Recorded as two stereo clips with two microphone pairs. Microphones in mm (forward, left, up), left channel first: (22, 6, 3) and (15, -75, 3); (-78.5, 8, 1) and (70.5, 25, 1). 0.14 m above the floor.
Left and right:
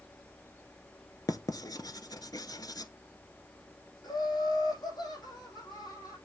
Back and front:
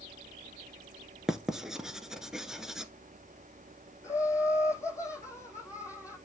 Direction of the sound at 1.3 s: 95° left.